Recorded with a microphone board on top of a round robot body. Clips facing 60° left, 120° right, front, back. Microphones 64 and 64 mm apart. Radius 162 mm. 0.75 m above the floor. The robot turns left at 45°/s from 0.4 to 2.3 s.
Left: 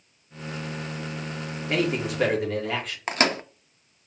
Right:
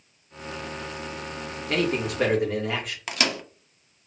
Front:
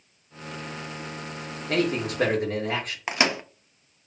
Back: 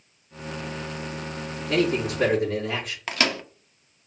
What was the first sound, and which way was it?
A man speaking, 10° right.